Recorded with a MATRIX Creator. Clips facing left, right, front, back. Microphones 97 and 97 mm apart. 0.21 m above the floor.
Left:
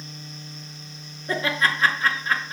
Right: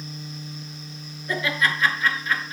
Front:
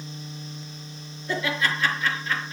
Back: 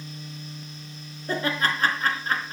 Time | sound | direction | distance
1.3 | laughter | 140° left | 3.5 m